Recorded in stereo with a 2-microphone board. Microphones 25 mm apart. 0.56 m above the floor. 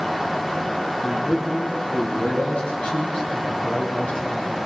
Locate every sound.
1.0 s a man speaking: 50° left (ahead or behind), 9.5 m